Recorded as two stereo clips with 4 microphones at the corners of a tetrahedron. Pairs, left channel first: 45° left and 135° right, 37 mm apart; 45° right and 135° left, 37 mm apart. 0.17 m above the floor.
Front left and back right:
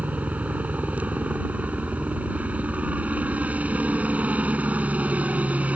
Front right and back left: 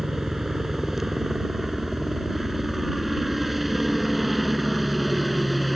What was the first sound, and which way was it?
A helicopter, 145° right.